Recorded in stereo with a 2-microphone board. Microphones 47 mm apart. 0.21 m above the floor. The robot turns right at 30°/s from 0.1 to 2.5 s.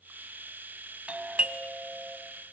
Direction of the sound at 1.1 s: 60° right.